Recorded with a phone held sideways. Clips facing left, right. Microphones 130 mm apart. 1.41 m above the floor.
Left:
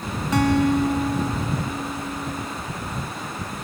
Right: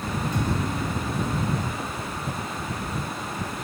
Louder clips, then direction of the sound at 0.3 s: Left 13 dB; 90° left.